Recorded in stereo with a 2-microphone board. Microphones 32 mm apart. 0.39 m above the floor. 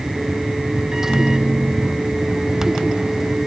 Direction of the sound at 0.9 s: 15° right (ahead or behind).